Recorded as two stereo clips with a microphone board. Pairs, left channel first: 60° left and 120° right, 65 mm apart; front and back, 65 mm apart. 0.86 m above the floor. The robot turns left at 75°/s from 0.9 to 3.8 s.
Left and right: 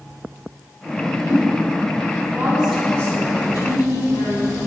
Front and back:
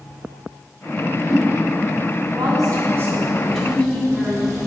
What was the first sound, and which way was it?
A whoosh, 65° left.